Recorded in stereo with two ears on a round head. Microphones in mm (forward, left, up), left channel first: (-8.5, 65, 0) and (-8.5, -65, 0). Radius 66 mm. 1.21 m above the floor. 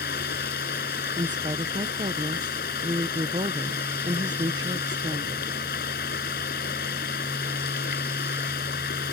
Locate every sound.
0.0 s running water: 65° left (ahead or behind)
1.2 s a woman speaking: 30° right (ahead or behind)